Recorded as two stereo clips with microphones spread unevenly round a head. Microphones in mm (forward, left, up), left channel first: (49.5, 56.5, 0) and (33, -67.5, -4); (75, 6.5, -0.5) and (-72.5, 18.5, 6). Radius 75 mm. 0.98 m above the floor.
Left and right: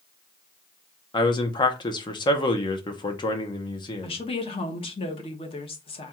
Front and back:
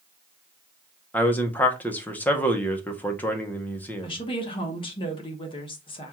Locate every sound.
1.1 s a man speaking: 60° left, 0.7 m
4.0 s a woman speaking: 45° left, 1.1 m